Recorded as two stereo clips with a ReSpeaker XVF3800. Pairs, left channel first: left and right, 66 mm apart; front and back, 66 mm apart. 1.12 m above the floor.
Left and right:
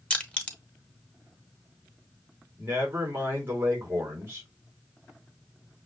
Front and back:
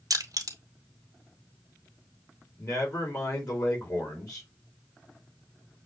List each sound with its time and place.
0.1 s crushing: 160° left, 1.0 m
2.6 s a man speaking: 35° right, 3 m